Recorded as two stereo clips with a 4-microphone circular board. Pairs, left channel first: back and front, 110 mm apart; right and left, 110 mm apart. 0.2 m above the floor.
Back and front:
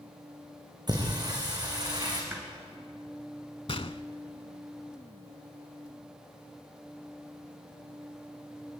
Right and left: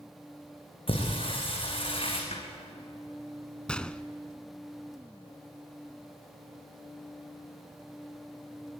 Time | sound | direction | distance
0.9 | singing | 50° right | 6 m
2.3 | a snare drum | 75° right | 4 m
3.7 | a gunshot | 170° right | 0.7 m